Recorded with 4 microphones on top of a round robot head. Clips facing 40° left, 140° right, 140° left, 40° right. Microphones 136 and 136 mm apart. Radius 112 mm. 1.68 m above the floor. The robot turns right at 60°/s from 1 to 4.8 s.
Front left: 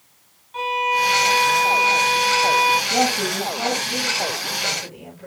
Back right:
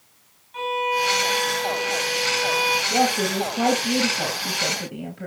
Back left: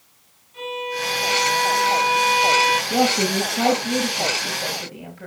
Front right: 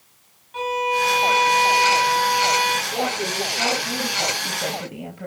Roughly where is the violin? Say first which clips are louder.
Front left 2 dB, front right 6 dB; ahead.